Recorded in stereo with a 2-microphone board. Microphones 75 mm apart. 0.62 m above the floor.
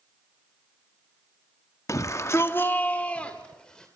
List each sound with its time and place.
1.9 s a shout: 40° left (ahead or behind), 0.8 m; by 3.9 s 10° left (ahead or behind), 2.0 m